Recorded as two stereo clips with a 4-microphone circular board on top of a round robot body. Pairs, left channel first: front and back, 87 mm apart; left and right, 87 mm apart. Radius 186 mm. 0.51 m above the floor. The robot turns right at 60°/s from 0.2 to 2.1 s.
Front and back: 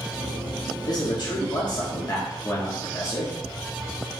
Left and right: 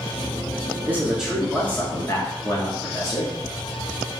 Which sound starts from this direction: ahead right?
A man speaking, at 0.9 s.